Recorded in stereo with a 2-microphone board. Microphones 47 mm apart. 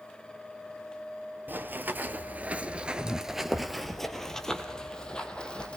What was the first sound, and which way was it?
Running footsteps, 40° right (ahead or behind).